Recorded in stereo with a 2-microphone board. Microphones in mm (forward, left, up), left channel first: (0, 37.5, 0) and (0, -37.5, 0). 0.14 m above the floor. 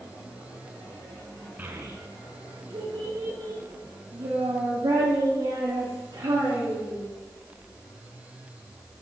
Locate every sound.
1.6 s a child speaking: 25° right (ahead or behind), 0.7 m; by 7.0 s 75° right (ahead or behind), 6 m